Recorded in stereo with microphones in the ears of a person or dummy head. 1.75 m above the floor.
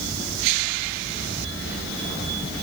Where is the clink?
No clink in this recording.